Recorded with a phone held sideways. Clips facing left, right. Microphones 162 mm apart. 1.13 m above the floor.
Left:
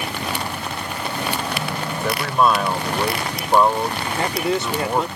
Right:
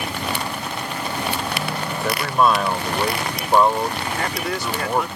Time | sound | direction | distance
1.9 | a man speaking | centre (ahead or behind) | ?
4.2 | a man speaking | 25° left (ahead or behind) | ?